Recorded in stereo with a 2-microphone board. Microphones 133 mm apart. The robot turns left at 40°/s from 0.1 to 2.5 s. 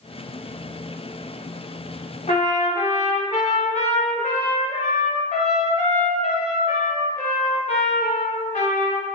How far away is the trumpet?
About 0.6 m.